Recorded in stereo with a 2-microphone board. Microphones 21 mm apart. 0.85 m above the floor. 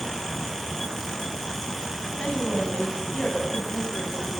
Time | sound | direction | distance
2.2 | a woman speaking | 70° left (ahead or behind) | 8.5 m